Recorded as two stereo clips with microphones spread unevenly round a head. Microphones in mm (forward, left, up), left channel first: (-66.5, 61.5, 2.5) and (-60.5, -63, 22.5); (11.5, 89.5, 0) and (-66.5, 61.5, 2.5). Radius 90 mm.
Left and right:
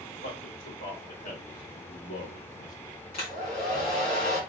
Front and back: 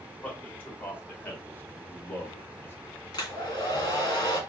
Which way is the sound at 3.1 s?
40° left.